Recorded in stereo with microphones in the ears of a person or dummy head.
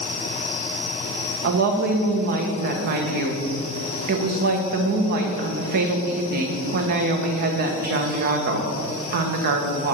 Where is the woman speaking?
50° right (ahead or behind), 1.1 m.